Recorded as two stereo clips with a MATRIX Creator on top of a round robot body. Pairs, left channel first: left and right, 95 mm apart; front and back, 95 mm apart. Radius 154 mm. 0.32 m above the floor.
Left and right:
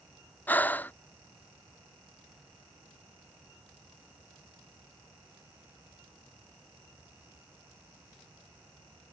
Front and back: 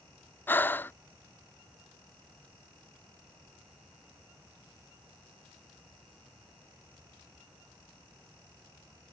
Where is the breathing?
40° left.